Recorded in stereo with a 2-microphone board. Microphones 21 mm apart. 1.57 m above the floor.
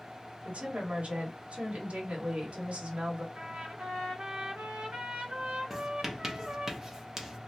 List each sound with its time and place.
0.5 s a woman speaking: 70° right (ahead or behind), 1.5 m
3.4 s a trumpet: 80° right, 1.5 m
5.7 s writing: 20° right (ahead or behind), 0.8 m